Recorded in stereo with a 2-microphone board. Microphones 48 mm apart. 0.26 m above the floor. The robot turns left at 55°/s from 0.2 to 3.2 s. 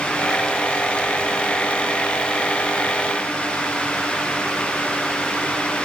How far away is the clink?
I don't hear a clink.